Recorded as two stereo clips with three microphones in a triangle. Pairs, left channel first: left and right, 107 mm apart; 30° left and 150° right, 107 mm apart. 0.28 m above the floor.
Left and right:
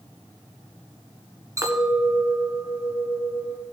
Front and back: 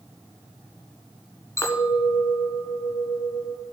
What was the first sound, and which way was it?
A clink, 30° right.